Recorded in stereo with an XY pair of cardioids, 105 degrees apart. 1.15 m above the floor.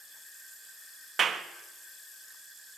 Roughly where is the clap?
Ahead right.